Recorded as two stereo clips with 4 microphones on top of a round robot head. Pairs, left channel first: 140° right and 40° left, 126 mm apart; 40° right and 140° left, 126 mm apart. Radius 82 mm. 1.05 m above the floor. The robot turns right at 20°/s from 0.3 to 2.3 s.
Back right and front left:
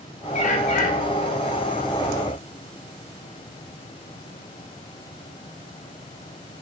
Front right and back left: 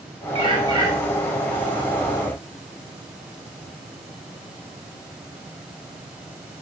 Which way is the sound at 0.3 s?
170° right.